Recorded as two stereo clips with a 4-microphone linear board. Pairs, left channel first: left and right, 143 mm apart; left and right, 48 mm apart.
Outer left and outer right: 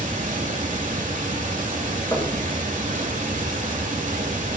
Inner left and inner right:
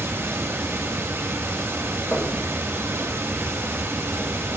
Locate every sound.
0.0 s running water: 65° right (ahead or behind), 1.2 m
2.1 s knocking: 20° left (ahead or behind), 2 m